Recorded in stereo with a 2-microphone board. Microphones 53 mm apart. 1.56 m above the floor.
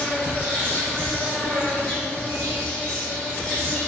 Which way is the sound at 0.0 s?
15° left (ahead or behind).